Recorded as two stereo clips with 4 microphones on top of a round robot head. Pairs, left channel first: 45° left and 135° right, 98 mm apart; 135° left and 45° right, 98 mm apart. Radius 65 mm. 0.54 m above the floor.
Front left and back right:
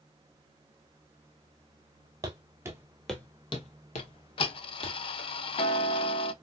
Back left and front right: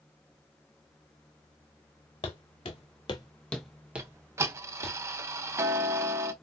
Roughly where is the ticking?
Ahead.